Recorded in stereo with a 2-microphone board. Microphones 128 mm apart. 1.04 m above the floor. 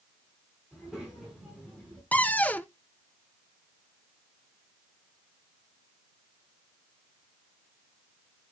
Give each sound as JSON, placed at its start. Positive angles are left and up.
{"t": 0.7, "sound": "a child speaking", "side_deg": -5, "distance_m": 5.5}
{"t": 2.1, "sound": "a cupboard door", "side_deg": 10, "distance_m": 0.7}